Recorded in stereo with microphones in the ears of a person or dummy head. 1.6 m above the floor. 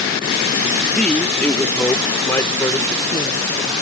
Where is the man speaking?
5° left (ahead or behind); by 3.7 s 15° left (ahead or behind).